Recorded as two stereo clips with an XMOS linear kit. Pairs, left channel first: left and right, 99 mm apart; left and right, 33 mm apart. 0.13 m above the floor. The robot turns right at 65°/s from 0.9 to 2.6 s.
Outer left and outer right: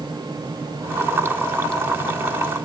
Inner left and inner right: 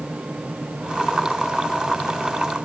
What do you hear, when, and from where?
Only background noise.